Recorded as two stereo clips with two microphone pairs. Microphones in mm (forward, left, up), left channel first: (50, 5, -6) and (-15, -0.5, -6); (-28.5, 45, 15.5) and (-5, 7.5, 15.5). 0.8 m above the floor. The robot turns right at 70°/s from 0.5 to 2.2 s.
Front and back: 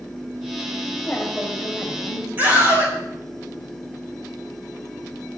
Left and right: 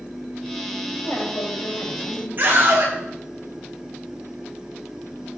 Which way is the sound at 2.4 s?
110° right.